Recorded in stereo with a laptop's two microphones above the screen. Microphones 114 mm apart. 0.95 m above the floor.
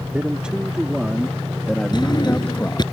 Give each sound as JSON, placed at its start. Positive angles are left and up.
{"t": 0.1, "sound": "a man speaking", "side_deg": -10}
{"t": 1.9, "sound": "a drawer", "side_deg": 40}